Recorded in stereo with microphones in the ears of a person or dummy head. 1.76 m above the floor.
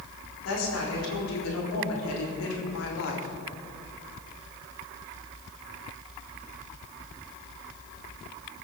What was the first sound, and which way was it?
A woman speaking, 80° left.